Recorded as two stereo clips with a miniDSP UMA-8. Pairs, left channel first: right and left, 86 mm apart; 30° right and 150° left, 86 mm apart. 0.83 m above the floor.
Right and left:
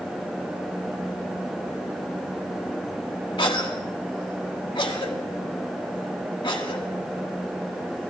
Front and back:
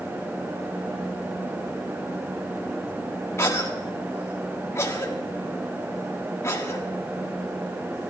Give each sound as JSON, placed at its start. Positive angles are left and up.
{"t": 3.4, "sound": "a cough", "azimuth_deg": -85, "distance_m": 1.7}